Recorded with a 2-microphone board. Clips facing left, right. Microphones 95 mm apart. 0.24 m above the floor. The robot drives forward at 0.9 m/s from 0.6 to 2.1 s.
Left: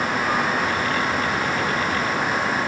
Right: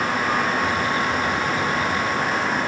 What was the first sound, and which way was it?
Only background noise.